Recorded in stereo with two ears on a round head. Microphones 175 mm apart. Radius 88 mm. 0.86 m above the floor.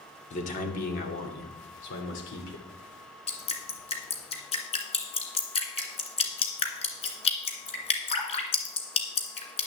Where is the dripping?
30° left (ahead or behind), 1.9 m.